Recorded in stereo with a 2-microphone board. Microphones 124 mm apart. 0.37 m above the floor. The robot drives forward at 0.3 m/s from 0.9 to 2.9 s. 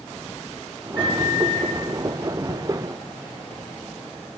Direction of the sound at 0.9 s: 15° left (ahead or behind).